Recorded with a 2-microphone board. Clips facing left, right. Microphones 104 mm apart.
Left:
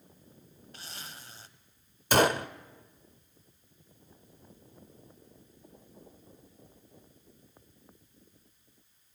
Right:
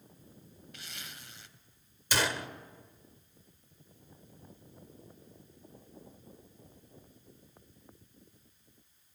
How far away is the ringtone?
No ringtone in this recording.